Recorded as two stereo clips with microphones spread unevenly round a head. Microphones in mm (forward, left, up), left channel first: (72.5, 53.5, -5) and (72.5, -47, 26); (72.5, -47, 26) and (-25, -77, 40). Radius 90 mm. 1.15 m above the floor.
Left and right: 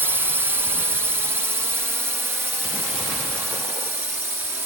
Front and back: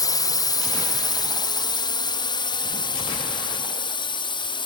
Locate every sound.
0.0 s a drone: 10° right; by 4.7 s 15° right